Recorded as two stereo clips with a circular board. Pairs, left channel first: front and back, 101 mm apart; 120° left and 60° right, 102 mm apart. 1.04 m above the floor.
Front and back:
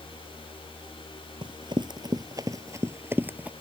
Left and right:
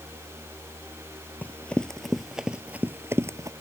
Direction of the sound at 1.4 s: 170° right.